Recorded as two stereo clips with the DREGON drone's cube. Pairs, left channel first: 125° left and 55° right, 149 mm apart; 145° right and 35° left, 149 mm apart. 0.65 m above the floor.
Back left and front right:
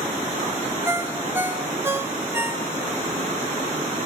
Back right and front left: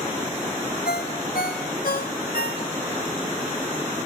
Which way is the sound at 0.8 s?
130° right.